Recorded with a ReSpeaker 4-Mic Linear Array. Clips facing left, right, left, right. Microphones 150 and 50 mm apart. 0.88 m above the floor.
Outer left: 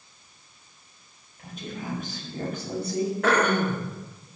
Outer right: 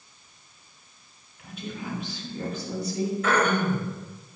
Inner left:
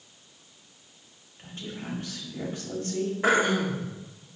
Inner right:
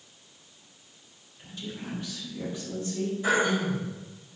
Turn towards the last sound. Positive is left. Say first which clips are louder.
# outer left 1 dB, inner left 2 dB
turn(degrees=70)  # may be behind; listen again after turning